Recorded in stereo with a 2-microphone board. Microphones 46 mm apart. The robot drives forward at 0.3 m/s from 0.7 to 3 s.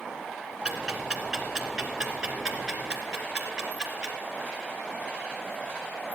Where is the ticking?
15° right (ahead or behind), 2.5 m.